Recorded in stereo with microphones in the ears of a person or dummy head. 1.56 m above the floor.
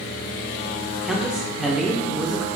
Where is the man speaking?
Centre (ahead or behind), 0.5 m.